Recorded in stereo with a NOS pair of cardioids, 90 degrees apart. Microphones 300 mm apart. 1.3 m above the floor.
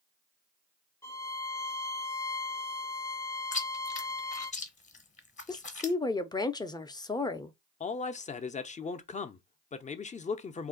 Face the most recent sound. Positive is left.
turn(degrees=25)